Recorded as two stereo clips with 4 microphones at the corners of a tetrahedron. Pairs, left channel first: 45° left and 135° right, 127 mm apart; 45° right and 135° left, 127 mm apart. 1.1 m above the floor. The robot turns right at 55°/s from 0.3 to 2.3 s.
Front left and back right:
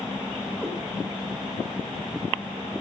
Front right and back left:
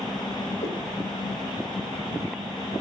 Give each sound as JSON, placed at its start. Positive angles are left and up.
{"t": 0.6, "sound": "a cat meowing", "azimuth_deg": -45, "distance_m": 2.5}